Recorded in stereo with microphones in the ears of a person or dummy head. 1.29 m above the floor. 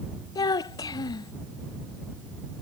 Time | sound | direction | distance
0.3 | a child speaking | 20° left (ahead or behind) | ?